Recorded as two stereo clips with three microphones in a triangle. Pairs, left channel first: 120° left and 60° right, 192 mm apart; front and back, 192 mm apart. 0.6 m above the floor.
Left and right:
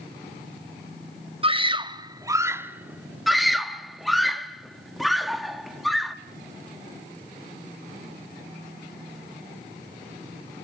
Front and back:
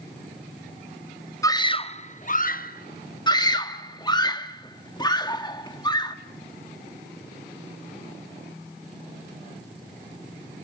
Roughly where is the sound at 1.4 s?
Ahead right.